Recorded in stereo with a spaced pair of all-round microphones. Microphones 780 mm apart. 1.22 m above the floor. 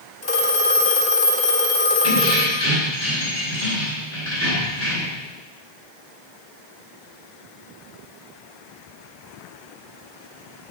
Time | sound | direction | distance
0.2 | a phone ringing | 30° left (ahead or behind) | 1.7 m
2.0 | keys jangling | 20° left (ahead or behind) | 3 m